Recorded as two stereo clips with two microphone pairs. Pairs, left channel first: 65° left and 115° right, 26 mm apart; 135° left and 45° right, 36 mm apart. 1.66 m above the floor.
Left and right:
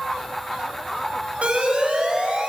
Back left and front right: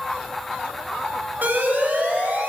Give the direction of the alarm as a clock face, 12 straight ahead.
3 o'clock.